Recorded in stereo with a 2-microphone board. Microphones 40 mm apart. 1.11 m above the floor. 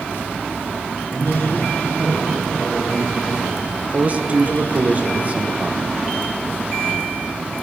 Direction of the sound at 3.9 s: 35° right (ahead or behind).